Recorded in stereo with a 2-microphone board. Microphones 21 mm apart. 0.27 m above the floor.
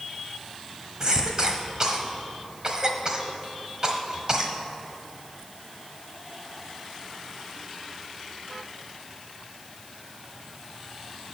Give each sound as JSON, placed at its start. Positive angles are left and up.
{"t": 1.0, "sound": "a cough", "side_deg": -35, "distance_m": 1.3}